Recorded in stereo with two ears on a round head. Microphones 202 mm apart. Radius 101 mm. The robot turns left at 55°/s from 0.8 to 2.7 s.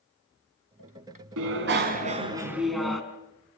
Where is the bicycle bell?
105° right, 2.5 m; by 3.0 s straight behind, 2.5 m.